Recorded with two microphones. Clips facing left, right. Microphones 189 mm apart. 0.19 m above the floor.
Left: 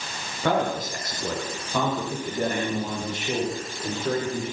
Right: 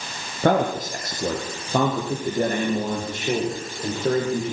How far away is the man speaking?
About 5.5 m.